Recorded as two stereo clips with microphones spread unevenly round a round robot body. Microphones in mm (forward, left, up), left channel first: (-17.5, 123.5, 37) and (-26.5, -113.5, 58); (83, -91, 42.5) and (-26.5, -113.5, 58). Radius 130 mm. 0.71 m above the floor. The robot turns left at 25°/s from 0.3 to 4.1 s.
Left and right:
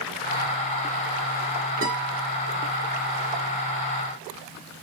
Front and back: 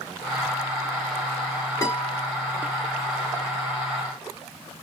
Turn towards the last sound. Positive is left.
turn(degrees=-110)